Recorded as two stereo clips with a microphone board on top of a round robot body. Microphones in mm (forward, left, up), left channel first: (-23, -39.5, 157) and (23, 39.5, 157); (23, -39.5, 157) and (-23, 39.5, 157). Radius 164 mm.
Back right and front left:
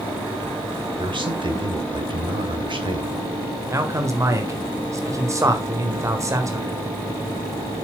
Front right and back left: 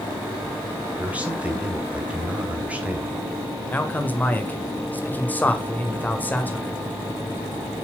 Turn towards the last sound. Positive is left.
turn(degrees=10)